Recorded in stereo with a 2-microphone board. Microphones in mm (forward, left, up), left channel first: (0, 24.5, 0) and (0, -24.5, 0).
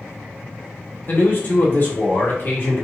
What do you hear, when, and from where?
1.1 s a man speaking: 45° left (ahead or behind), 1.3 m